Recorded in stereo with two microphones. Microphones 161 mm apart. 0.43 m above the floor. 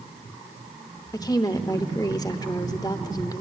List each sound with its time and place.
1.1 s a woman speaking: 25° left (ahead or behind), 0.9 m